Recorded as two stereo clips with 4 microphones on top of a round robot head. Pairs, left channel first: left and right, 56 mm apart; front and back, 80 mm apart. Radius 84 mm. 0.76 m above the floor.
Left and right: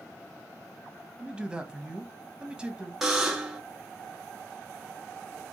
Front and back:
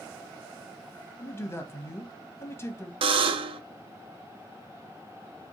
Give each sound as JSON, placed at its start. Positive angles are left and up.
{"t": 1.2, "sound": "a man speaking", "azimuth_deg": -30, "distance_m": 1.0}
{"t": 3.0, "sound": "a buzzer", "azimuth_deg": -175, "distance_m": 0.5}